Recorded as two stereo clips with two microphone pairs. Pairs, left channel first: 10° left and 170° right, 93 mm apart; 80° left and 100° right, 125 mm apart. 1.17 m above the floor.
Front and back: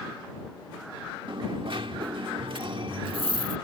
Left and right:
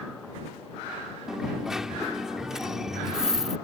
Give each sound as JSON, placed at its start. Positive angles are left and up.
{"t": 1.3, "sound": "a dropped coin", "azimuth_deg": 175}